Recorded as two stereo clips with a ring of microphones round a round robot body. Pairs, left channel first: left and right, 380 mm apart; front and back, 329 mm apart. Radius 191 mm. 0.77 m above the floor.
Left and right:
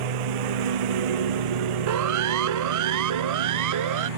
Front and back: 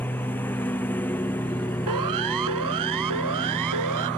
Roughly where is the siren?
Behind right.